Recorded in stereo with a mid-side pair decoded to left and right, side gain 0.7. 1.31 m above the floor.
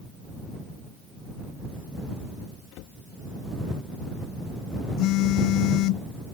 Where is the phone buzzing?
60° left.